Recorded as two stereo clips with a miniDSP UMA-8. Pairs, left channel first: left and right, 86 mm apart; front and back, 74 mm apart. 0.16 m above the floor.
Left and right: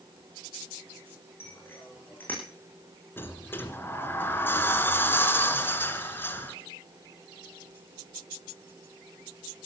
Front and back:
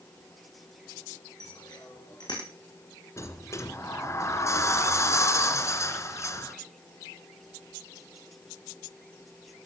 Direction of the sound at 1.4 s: 25° left.